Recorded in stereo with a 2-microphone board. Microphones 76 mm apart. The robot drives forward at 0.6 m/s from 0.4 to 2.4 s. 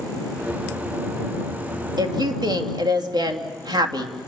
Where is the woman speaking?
70° right (ahead or behind), 2.5 m; by 4.1 s 75° right (ahead or behind), 2.5 m.